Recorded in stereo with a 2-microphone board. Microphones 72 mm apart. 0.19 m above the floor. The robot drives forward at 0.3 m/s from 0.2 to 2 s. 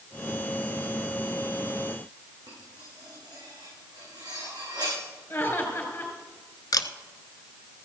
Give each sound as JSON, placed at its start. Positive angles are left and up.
{"t": 2.5, "sound": "cutlery clinking", "side_deg": -80, "distance_m": 7.5}
{"t": 5.3, "sound": "laughter", "side_deg": 30, "distance_m": 3.5}
{"t": 6.7, "sound": "a camera shutter", "side_deg": 70, "distance_m": 0.7}